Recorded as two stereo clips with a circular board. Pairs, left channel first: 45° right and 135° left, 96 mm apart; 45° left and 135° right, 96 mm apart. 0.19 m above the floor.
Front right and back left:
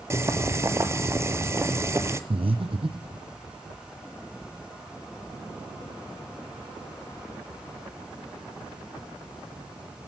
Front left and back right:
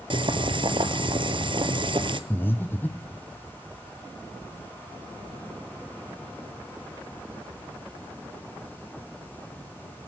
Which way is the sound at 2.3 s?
115° left.